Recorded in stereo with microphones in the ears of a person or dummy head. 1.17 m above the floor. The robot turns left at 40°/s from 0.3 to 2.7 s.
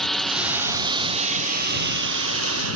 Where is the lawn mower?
Centre (ahead or behind); by 2.8 s 80° right.